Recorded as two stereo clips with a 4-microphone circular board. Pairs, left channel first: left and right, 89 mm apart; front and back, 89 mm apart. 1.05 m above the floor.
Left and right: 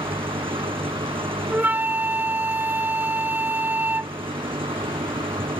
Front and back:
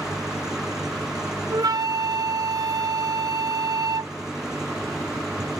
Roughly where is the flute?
Behind right.